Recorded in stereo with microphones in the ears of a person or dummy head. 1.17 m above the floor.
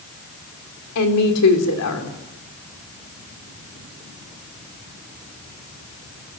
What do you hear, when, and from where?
0.9 s a woman speaking: 80° left, 3.5 m